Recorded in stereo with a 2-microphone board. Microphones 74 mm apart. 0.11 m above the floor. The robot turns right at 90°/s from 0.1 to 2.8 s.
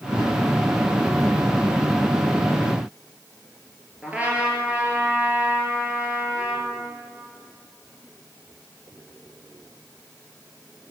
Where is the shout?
No shout in this recording.